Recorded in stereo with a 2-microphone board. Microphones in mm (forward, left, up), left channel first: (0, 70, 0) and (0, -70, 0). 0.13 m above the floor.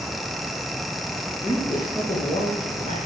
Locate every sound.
1.4 s a man speaking: 40° left (ahead or behind), 7.5 m